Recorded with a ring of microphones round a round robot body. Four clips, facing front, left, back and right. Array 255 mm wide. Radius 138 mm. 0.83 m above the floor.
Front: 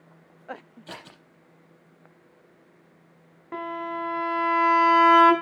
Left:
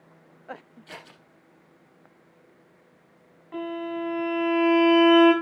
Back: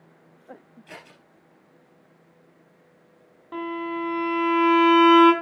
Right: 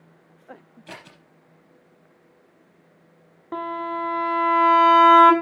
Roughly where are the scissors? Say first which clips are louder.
Right 3 dB, front 2 dB; ahead right.